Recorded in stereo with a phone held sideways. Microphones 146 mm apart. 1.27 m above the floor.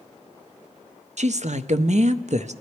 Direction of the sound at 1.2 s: 60° right (ahead or behind).